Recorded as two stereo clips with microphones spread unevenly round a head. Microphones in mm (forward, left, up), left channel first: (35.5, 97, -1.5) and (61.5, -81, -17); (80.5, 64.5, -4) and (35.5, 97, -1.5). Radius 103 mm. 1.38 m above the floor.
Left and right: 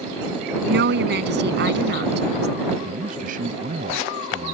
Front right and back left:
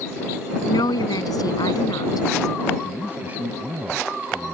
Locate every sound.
0.7 s a woman speaking: 55° right
2.8 s a man speaking: 135° right